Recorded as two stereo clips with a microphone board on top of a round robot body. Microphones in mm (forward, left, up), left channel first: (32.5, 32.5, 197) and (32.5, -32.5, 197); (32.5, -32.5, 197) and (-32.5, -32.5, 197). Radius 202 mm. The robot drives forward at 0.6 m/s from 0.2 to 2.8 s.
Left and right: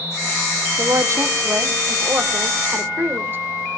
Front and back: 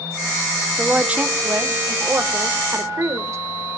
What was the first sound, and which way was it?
A woman speaking, 105° right.